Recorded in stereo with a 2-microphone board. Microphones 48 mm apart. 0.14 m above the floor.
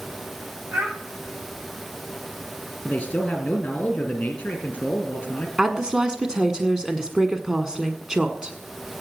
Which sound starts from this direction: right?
A child speaking, at 0.7 s.